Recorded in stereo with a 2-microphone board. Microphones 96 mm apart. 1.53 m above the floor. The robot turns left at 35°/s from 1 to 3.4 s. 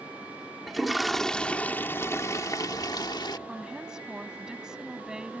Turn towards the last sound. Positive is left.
turn(degrees=-10)  # may be behind; listen again after turning